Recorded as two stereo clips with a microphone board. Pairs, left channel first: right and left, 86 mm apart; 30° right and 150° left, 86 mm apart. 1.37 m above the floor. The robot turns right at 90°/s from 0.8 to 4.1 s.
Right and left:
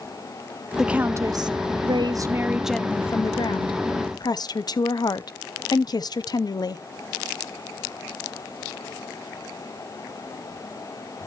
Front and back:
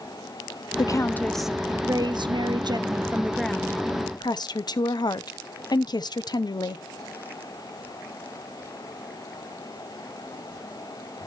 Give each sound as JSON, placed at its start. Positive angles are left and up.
{"t": 0.8, "sound": "a woman speaking", "azimuth_deg": 5, "distance_m": 0.5}